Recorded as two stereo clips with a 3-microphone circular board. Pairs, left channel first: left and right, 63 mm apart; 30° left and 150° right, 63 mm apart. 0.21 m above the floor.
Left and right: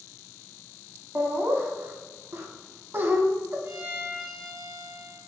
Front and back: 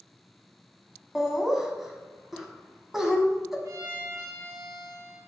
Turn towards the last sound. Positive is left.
turn(degrees=-145)